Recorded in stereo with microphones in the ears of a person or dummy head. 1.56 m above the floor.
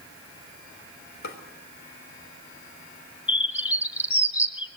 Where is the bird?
10° right (ahead or behind), 0.6 m.